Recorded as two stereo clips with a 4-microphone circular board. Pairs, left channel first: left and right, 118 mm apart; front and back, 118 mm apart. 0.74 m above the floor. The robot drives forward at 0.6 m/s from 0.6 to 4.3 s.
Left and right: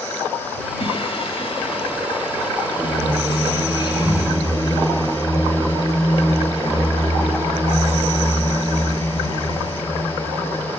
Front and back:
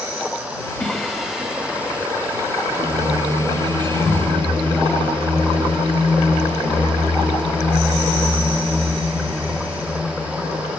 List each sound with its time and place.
0.8 s singing: 80° left, 1.7 m; by 10.8 s 145° left, 2.5 m